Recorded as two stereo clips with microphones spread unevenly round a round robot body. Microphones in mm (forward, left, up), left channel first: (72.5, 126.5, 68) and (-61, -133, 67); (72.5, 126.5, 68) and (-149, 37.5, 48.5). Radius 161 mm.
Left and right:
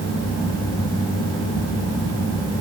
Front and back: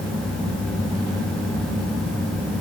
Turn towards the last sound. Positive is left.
No sound to turn to.